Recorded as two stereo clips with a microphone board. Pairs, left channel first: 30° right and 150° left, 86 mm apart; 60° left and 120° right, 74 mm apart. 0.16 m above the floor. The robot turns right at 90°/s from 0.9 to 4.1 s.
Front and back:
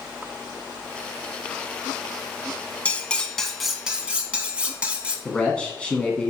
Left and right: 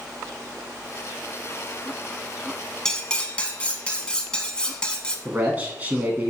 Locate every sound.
2.9 s cutlery clinking: 5° right, 0.6 m; by 5.2 s 110° left, 0.6 m
5.2 s a man speaking: 90° right, 1.1 m